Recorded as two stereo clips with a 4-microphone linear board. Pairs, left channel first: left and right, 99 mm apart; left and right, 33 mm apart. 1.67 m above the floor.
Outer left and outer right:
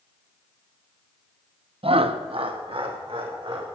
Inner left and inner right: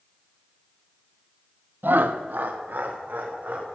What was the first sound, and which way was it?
Laughter, 75° right (ahead or behind).